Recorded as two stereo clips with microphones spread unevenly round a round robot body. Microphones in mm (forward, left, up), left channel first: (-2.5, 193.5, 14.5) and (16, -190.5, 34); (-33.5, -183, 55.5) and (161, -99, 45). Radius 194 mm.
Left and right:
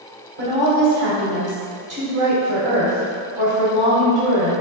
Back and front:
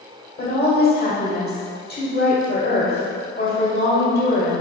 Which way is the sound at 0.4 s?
140° right.